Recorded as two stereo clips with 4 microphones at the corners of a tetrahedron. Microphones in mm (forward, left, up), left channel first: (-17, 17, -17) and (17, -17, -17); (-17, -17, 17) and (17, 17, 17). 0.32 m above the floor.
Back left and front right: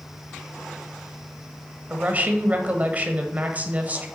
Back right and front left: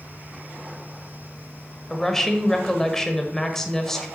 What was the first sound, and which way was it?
A woman speaking, 60° right.